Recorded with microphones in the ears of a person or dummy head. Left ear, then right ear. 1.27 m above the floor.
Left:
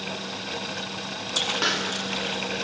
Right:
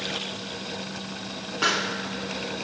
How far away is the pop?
About 1.7 m.